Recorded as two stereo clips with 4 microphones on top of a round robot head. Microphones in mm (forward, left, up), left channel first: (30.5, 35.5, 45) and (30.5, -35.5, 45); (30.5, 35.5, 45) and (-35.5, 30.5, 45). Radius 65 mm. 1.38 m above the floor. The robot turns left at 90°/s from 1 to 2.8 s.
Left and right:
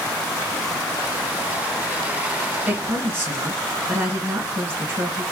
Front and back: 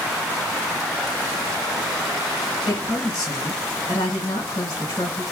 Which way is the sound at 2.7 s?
20° right.